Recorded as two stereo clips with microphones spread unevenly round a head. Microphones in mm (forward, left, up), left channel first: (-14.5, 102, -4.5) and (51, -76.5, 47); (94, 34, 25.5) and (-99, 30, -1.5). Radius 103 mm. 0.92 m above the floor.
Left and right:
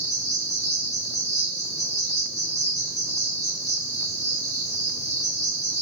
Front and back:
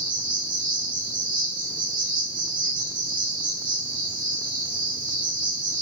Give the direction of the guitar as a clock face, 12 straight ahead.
No guitar in this recording.